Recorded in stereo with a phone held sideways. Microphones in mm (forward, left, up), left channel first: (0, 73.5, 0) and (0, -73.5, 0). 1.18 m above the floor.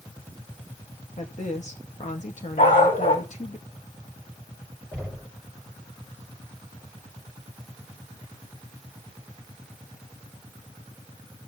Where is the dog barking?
75° left (ahead or behind), 4.5 m.